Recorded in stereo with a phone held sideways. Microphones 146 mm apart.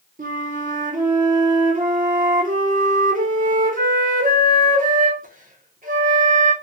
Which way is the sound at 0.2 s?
70° right (ahead or behind).